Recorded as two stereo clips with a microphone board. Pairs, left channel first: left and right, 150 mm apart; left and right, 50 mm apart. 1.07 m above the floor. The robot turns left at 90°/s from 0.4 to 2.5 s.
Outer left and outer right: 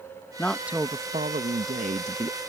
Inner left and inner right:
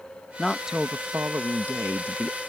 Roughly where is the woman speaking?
Ahead.